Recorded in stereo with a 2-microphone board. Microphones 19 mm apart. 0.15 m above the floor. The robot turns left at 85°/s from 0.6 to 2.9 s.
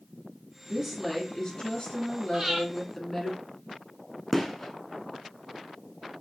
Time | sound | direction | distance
0.7 | a woman speaking | 155° right | 2.5 m
2.3 | breathing | 25° right (ahead or behind) | 2 m
4.3 | a gunshot | 15° left (ahead or behind) | 0.8 m